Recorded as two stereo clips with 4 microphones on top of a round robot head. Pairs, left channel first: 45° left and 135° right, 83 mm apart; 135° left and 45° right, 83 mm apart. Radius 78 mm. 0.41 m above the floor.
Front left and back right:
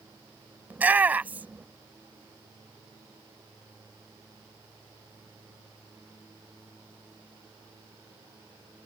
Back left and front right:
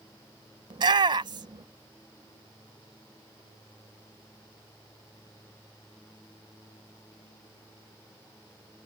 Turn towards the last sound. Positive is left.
turn(degrees=-60)